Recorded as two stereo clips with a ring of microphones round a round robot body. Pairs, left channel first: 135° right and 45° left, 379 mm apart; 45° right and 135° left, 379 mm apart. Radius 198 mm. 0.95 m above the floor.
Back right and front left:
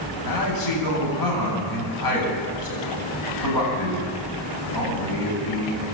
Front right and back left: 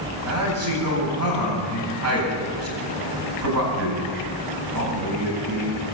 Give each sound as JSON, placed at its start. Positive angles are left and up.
{"t": 0.2, "sound": "a man speaking", "azimuth_deg": -175, "distance_m": 8.5}